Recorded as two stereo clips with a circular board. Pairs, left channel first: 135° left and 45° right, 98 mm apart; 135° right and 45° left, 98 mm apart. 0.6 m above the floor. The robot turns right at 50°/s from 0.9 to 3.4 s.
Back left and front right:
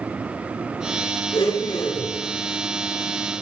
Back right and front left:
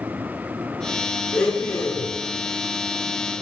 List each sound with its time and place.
1.3 s a blender: 140° left, 4 m; by 2.1 s straight behind, 4 m